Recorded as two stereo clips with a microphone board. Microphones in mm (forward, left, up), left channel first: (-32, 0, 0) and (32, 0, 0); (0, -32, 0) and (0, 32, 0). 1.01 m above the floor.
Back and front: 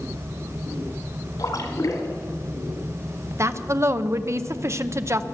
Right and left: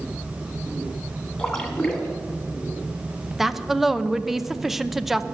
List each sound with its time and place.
1.4 s a splash: 175° right, 2.5 m
3.4 s a woman speaking: 5° left, 0.6 m